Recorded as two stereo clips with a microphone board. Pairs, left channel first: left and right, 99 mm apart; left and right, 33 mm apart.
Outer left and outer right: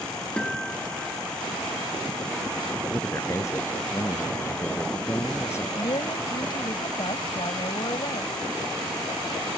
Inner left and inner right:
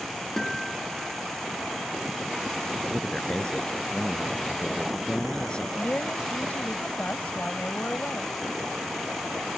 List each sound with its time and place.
0.4 s a guitar: 10° left (ahead or behind)
2.9 s a man speaking: 30° left (ahead or behind)
5.8 s a woman speaking: 55° left (ahead or behind)